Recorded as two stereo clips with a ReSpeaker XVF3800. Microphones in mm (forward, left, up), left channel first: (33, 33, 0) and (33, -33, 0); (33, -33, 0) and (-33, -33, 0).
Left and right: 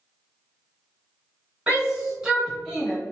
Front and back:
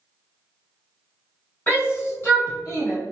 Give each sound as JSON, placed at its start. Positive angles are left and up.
{"t": 1.7, "sound": "a shout", "azimuth_deg": -35, "distance_m": 1.2}